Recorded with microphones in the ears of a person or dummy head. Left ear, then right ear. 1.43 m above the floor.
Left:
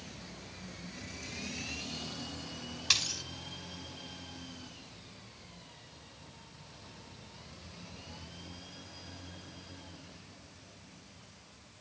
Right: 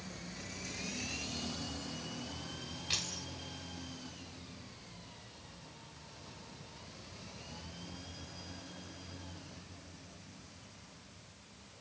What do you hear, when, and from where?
2.9 s a dropped coin: 60° left (ahead or behind), 7 m